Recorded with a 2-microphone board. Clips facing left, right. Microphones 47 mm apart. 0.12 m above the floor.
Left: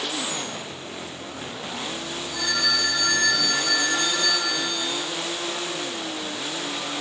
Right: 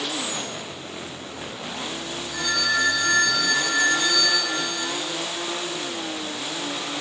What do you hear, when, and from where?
2.3 s a phone ringing: 55° right (ahead or behind), 1.6 m